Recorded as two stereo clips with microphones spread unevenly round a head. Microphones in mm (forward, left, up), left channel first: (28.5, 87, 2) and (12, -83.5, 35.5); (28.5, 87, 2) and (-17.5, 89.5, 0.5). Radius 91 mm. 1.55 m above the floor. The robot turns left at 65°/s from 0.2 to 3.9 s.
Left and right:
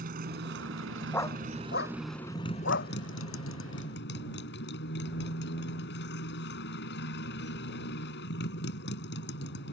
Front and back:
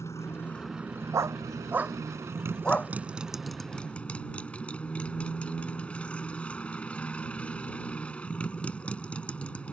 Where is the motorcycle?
60° right; by 9.7 s 60° left.